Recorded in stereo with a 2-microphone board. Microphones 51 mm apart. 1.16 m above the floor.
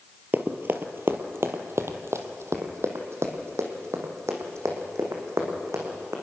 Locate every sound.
0.3 s running footsteps: 40° right (ahead or behind), 1.4 m; by 6.1 s 70° right (ahead or behind), 4.5 m